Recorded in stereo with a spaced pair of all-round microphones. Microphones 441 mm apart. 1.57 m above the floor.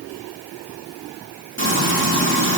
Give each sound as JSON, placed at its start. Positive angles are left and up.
{"t": 1.6, "sound": "frying", "side_deg": -25, "distance_m": 3.5}